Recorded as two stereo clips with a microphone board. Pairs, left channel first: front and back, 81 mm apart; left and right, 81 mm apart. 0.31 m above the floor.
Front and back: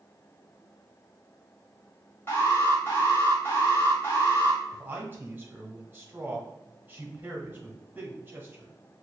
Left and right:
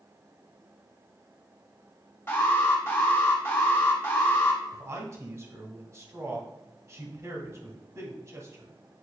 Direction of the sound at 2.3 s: 45° left.